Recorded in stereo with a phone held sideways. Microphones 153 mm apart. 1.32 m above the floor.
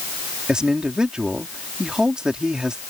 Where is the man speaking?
5° right (ahead or behind).